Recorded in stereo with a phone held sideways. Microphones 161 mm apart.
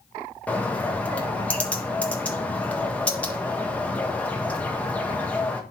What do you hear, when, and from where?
0.5 s a bird: 10° left (ahead or behind), 1.5 m